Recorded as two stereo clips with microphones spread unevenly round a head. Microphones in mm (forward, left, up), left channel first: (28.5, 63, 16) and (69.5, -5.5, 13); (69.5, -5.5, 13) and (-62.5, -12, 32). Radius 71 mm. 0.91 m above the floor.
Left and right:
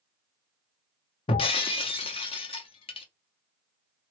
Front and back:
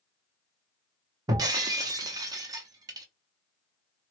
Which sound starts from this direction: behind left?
Breaking glass, at 1.3 s.